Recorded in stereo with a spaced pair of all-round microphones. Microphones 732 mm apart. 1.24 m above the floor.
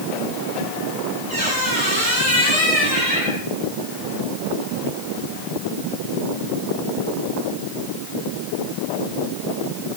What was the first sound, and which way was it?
A squeak, 85° right.